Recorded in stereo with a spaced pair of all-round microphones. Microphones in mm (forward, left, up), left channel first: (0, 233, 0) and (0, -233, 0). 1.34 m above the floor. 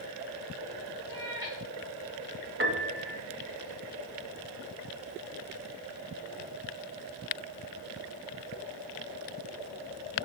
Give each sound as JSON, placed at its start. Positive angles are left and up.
{"t": 1.1, "sound": "a cat meowing", "side_deg": 60, "distance_m": 2.5}
{"t": 2.6, "sound": "a piano", "side_deg": -25, "distance_m": 2.0}